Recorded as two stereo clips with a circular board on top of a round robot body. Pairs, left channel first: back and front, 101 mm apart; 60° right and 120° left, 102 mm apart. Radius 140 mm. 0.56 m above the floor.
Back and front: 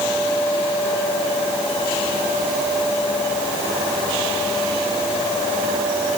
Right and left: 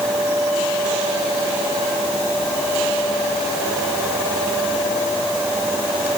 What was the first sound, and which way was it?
Only background noise.